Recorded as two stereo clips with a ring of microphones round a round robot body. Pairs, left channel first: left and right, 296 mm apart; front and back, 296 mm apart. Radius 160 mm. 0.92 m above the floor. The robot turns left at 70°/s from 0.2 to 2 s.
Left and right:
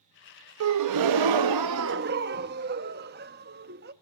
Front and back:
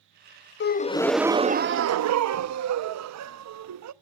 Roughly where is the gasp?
Ahead right.